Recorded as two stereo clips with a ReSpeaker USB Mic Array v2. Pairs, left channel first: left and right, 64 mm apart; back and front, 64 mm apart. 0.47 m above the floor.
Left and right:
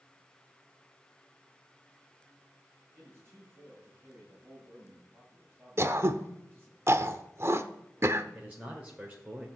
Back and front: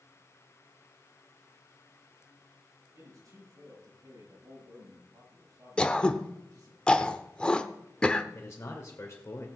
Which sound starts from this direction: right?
Throat clearing, at 5.8 s.